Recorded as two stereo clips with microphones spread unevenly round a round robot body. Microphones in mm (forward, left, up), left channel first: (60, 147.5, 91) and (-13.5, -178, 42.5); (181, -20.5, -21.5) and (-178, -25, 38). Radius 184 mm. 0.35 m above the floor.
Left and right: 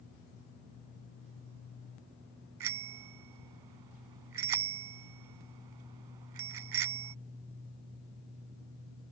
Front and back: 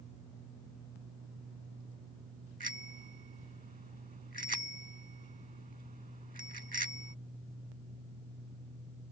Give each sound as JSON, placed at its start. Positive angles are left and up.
{"t": 2.6, "sound": "a bicycle bell", "azimuth_deg": -110}